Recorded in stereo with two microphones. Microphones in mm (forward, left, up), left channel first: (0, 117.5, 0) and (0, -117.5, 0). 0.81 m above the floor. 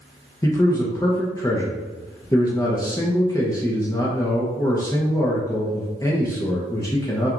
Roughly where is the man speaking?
Centre.